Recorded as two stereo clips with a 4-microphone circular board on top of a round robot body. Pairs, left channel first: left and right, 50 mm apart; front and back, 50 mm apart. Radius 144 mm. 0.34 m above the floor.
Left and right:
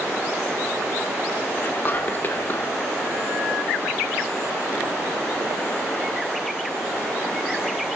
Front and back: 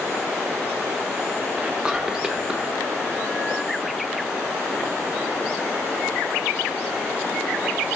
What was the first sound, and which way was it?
Whispering, 115° left.